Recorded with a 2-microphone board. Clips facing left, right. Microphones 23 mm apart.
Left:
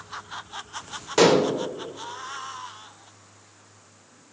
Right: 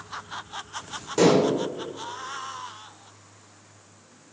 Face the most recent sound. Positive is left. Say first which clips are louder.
# left 1 dB
turn(degrees=40)  # may be behind; listen again after turning